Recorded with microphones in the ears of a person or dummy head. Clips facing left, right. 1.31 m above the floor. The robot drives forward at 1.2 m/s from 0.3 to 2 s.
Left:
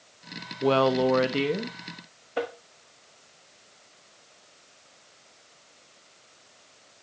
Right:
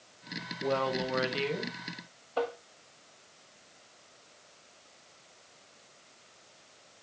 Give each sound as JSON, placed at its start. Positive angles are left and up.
{"t": 0.6, "sound": "a woman speaking", "side_deg": 85, "distance_m": 1.2}
{"t": 2.4, "sound": "tapping", "side_deg": 20, "distance_m": 1.4}